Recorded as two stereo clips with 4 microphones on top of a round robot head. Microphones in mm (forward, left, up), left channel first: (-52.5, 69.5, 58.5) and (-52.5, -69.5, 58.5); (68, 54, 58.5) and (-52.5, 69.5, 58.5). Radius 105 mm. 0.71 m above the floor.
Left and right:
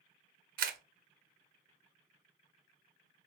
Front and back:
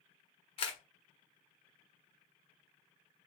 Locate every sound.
0.6 s a camera shutter: 60° right, 0.5 m